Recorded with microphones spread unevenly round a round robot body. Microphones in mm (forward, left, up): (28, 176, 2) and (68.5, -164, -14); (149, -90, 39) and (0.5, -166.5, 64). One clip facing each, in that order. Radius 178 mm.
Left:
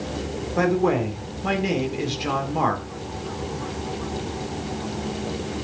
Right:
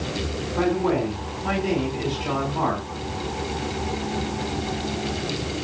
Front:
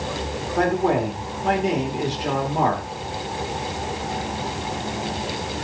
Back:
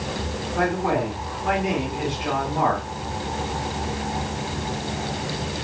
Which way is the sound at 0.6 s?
80° left.